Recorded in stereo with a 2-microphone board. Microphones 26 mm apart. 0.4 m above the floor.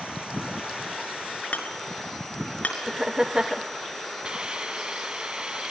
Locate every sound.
1.5 s hammering: 75° left (ahead or behind), 4.5 m
2.9 s laughter: 20° right (ahead or behind), 0.8 m
4.2 s a hiss: 35° right (ahead or behind), 1.7 m